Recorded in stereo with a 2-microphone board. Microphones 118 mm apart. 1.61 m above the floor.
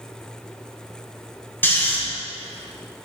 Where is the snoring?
15° left (ahead or behind), 1.5 m.